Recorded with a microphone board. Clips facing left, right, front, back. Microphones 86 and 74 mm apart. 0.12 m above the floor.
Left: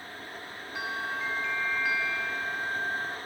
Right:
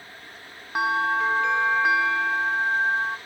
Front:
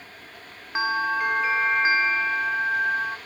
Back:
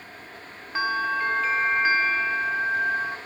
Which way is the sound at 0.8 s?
75° right.